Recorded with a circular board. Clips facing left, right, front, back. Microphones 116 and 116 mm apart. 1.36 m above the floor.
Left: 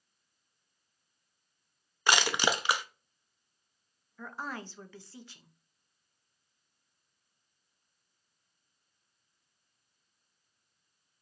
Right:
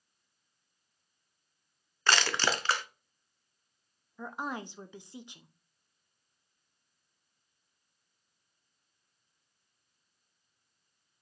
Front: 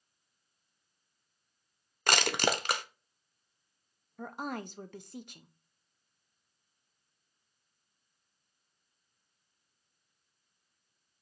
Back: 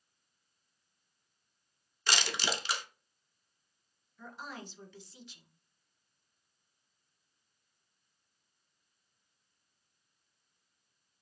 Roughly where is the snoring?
I don't hear snoring.